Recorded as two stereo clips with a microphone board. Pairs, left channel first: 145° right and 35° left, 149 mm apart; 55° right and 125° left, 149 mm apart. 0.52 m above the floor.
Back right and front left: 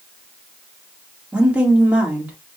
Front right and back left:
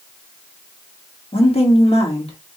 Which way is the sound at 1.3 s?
40° right.